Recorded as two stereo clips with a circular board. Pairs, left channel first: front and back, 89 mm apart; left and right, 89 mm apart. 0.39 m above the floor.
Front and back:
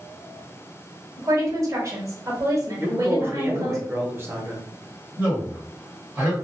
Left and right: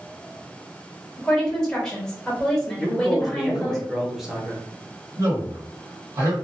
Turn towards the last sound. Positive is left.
turn(degrees=-120)